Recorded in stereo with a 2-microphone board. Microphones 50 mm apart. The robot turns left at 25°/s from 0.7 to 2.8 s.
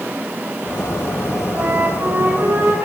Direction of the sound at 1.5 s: 65° right.